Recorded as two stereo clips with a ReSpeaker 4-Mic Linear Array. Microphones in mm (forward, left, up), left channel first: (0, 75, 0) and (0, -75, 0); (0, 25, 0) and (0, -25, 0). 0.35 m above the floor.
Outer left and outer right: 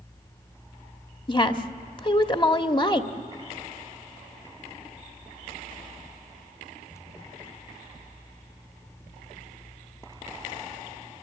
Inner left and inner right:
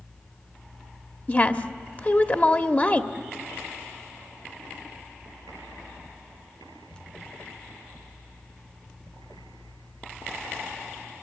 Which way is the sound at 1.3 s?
35° left (ahead or behind).